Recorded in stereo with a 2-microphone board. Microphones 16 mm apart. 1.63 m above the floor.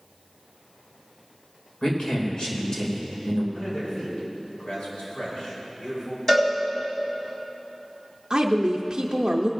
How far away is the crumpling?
No crumpling in this recording.